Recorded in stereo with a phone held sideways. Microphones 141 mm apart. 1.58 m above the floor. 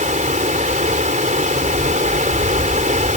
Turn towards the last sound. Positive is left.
turn(degrees=-60)  # may be behind; listen again after turning